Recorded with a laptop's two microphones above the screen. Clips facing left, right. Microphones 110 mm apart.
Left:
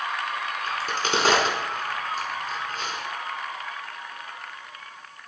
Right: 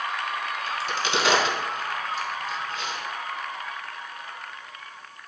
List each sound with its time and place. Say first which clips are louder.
0.7 s a crack: left 2 dB; 45° left (ahead or behind), 2.5 m